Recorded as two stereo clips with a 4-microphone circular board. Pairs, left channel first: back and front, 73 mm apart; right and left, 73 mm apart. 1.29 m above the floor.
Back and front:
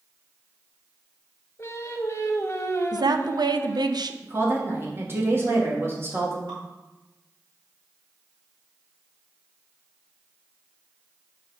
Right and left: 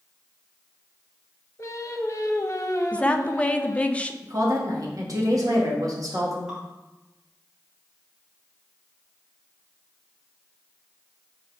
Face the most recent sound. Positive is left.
turn(degrees=5)